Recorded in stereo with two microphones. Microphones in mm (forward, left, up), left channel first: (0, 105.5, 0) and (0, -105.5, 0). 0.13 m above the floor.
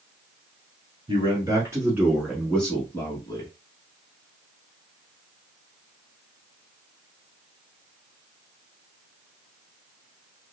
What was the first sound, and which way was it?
A man speaking, 20° right (ahead or behind).